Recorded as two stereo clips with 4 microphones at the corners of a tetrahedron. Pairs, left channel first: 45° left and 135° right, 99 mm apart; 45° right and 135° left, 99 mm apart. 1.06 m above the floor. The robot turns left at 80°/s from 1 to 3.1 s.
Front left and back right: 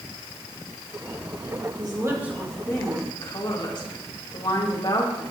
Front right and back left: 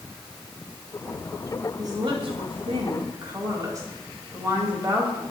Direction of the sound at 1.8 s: 170° right.